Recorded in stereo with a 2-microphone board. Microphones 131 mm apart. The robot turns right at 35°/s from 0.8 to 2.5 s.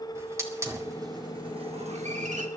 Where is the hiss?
25° right (ahead or behind), 2 m; by 2.5 s 80° right, 2 m.